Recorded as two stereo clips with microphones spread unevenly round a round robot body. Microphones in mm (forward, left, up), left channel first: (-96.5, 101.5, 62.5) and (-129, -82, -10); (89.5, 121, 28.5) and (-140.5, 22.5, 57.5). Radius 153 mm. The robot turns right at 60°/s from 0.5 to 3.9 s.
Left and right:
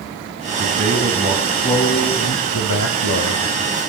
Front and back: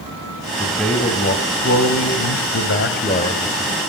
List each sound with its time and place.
0.6 s a man speaking: 75° right, 3.5 m; by 3.7 s 110° left, 3.5 m